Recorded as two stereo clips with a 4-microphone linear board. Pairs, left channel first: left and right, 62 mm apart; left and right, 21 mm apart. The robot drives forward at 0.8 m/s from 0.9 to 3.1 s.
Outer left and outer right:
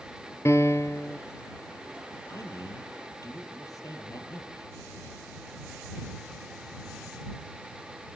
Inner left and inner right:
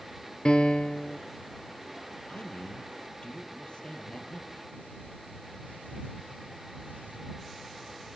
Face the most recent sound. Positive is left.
turn(degrees=60)  # may be behind; listen again after turning